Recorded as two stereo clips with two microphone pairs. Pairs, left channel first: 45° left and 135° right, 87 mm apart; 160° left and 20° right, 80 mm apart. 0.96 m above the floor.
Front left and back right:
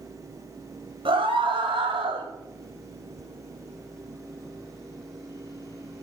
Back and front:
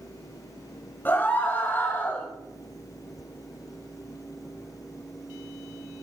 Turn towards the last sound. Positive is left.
turn(degrees=-135)